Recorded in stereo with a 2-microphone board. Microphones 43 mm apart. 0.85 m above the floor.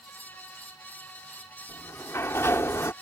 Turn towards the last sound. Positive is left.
turn(degrees=75)  # may be behind; listen again after turning